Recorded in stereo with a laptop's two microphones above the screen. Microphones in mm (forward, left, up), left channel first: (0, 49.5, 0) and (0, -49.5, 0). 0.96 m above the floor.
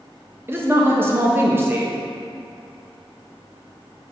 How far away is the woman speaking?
About 0.7 m.